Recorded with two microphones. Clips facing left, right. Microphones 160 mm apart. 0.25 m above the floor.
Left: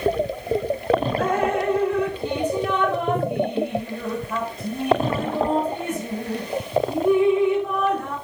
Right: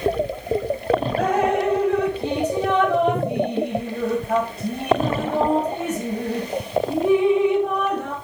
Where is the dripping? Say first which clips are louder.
Right 2 dB; 70° right (ahead or behind), 5 m.